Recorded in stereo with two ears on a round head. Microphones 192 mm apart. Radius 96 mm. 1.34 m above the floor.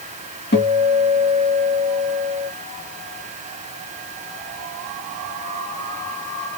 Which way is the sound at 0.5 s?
50° left (ahead or behind).